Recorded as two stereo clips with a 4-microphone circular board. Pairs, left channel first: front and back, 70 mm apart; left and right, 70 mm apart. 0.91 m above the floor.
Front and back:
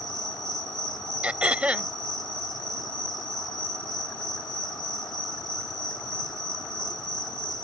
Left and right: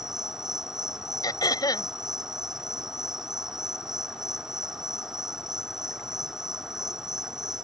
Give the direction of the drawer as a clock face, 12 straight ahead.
No drawer in this recording.